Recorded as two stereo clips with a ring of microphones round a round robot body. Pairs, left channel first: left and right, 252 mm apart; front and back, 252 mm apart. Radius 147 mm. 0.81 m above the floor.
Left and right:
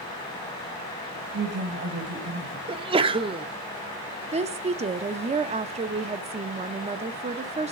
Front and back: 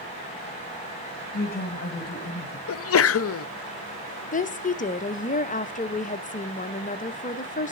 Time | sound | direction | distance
1.3 | a woman speaking | 50° right | 1.3 m
2.7 | a sneeze | 20° right | 0.6 m
4.3 | a woman speaking | 40° right | 0.7 m